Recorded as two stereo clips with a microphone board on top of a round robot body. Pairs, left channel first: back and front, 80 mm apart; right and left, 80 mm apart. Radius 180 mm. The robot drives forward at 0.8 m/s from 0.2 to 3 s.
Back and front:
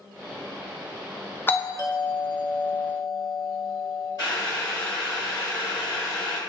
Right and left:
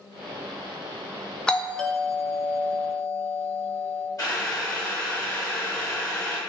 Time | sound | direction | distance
1.5 | a doorbell | 160° right | 0.8 m
4.2 | boiling | 145° right | 1.6 m